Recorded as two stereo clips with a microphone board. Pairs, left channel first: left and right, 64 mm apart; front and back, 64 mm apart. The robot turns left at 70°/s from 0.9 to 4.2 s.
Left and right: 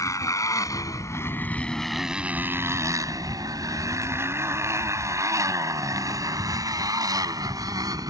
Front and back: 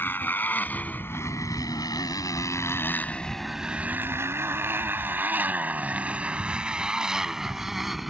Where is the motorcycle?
55° left; by 8.1 s 95° right.